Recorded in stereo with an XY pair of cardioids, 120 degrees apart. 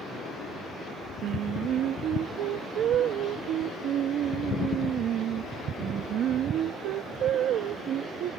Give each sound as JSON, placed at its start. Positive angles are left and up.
{"t": 1.2, "sound": "singing", "azimuth_deg": -65}